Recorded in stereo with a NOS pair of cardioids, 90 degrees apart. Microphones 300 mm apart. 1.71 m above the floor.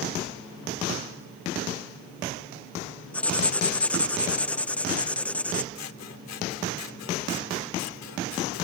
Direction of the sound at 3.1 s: 5° left.